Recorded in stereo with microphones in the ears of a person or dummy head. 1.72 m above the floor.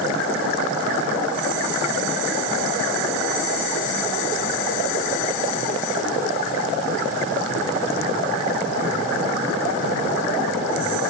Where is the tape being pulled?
No tape being pulled in this recording.